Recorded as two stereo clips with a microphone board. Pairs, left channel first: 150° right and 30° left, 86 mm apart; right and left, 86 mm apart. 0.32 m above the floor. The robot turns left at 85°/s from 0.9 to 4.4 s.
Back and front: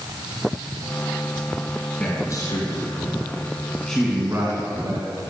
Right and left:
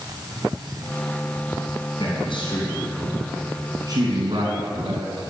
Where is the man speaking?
70° right, 3 m; by 5.2 s 85° left, 3 m.